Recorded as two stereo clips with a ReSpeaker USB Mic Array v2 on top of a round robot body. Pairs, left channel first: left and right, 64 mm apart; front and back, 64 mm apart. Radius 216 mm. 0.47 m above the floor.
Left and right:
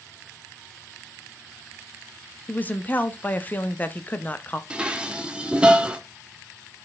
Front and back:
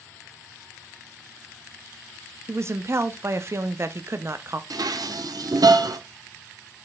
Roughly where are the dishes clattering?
Behind.